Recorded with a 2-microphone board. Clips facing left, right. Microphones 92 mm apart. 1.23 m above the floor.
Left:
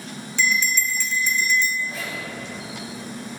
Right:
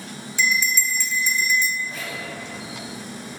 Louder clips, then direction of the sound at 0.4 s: Even; 10° right (ahead or behind).